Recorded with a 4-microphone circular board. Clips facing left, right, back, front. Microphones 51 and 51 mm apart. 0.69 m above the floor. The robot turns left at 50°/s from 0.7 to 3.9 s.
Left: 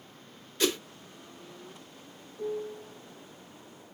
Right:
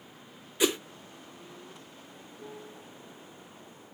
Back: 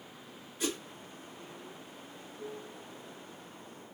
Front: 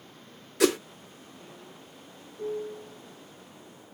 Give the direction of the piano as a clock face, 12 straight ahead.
10 o'clock.